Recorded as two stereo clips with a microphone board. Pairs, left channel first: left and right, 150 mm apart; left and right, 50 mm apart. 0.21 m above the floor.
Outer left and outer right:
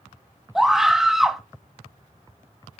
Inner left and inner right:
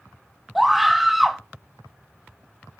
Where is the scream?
5° right (ahead or behind), 1.3 m.